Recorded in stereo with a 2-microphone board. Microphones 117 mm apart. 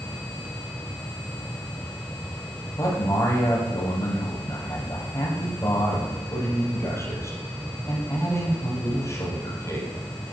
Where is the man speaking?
25° left (ahead or behind), 4.5 m.